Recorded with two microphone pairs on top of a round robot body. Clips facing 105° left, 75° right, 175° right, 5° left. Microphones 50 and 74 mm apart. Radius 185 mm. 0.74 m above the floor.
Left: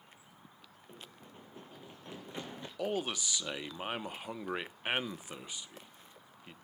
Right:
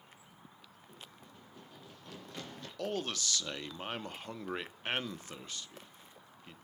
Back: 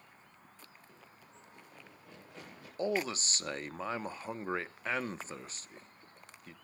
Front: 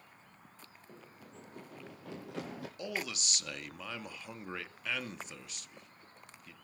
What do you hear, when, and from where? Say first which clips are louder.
0.9 s running footsteps: left 3 dB, front 4 dB; 55° left, 0.8 m; by 2.7 s 30° left, 1.6 m
2.8 s a man speaking: left 2 dB, back 8 dB; 170° left, 1.2 m